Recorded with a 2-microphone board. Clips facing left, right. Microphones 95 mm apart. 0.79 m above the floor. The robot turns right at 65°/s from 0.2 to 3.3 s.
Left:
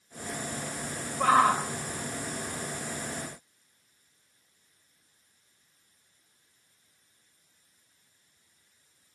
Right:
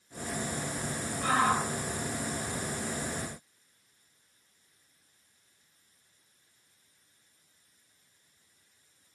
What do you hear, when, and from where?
1.2 s a shout: 65° left (ahead or behind), 3.5 m; by 1.6 s 40° left (ahead or behind), 3.5 m